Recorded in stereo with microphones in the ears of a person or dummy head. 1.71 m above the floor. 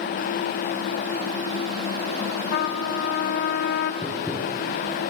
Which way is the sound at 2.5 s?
65° left (ahead or behind).